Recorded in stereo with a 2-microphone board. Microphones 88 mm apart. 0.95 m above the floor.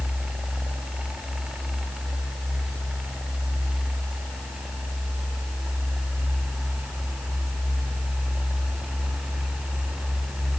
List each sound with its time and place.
Only background noise.